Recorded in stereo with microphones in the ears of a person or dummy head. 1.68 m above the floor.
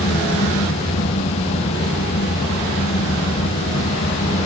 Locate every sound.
0.0 s a fan: 35° left (ahead or behind), 0.9 m